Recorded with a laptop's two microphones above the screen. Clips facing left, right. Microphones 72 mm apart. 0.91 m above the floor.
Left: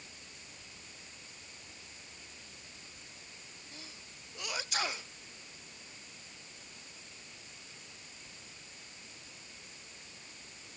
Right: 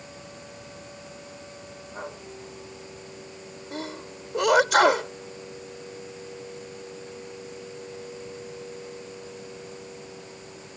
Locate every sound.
0.0 s a machine running: 80° right
3.7 s a sneeze: 80° right